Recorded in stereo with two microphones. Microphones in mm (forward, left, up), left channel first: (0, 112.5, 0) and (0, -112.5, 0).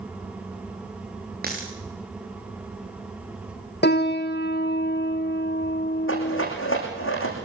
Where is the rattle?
65° left (ahead or behind), 10 m.